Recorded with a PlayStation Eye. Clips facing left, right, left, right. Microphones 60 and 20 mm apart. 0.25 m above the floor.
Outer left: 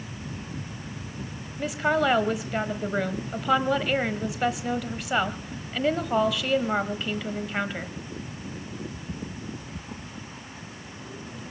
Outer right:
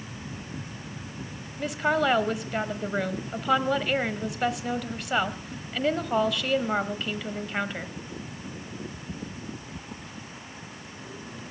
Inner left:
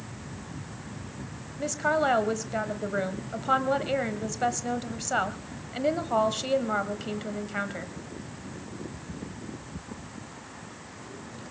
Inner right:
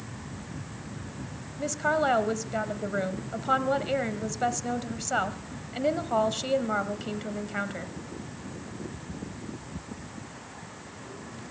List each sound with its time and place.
1.6 s a woman speaking: centre (ahead or behind), 1.1 m